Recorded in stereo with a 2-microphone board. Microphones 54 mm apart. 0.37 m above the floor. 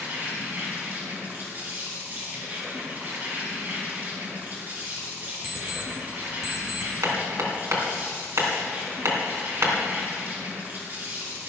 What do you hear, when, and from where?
0.0 s an insect: 40° right (ahead or behind), 5 m
5.4 s an alarm clock: 15° right (ahead or behind), 3.5 m
7.0 s hammering: 70° right (ahead or behind), 3 m